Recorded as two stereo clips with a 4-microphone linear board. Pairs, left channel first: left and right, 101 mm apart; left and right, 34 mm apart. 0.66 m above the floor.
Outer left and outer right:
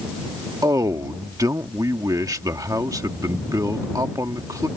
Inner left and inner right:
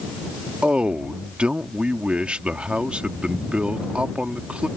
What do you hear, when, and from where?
0.6 s a man speaking: 35° right (ahead or behind)